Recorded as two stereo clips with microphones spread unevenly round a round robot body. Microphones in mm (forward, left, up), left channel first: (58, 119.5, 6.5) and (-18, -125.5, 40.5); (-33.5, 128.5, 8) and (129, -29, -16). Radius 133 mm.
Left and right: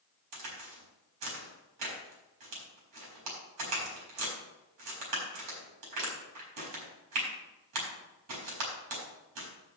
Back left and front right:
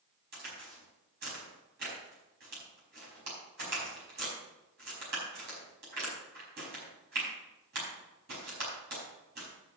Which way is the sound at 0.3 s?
100° right.